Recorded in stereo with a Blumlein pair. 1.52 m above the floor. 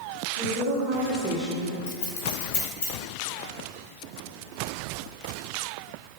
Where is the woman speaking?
70° right, 1.0 m; by 1.8 s 40° left, 0.7 m.